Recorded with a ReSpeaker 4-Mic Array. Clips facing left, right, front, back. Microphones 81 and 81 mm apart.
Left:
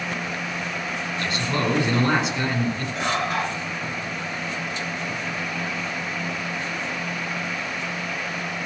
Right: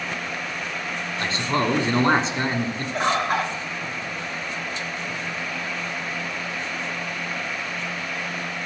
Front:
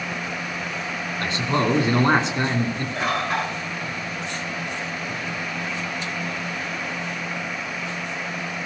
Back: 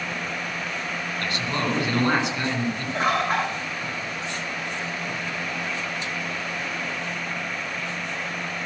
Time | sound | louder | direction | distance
1.2 | a man speaking | right 2 dB, front 6 dB | 50° right | 1.9 m
3.0 | a bird | right 4 dB, back 2 dB | 130° right | 6.5 m